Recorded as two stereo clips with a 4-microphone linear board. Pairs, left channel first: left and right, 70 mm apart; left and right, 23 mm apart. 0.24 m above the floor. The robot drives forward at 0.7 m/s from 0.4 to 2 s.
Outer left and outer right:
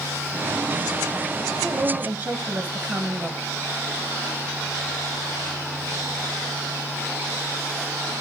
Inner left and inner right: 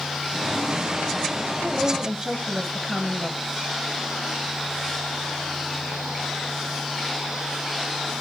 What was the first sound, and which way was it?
A woman speaking, 25° right (ahead or behind).